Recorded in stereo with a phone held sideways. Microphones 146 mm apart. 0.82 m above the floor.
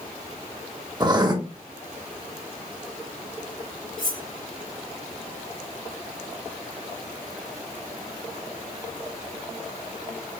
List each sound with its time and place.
1.0 s writing: 30° right (ahead or behind), 0.7 m
4.0 s cutlery clinking: 65° right (ahead or behind), 2.5 m